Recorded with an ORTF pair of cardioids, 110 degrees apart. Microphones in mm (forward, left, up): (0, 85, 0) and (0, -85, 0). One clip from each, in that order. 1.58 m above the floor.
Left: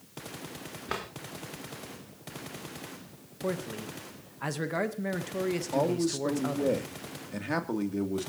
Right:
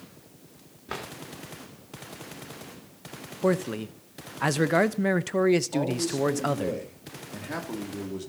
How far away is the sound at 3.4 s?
About 0.9 m.